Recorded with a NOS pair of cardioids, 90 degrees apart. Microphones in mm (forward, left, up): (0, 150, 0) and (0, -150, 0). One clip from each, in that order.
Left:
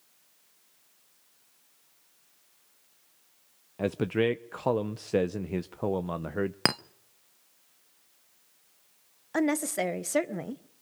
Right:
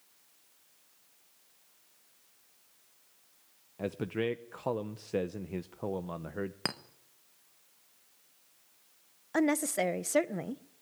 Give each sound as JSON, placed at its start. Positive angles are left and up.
{"t": 3.8, "sound": "a man speaking", "azimuth_deg": 25, "distance_m": 0.7}
{"t": 6.7, "sound": "a clink", "azimuth_deg": 40, "distance_m": 0.8}
{"t": 9.3, "sound": "a woman speaking", "azimuth_deg": 0, "distance_m": 1.2}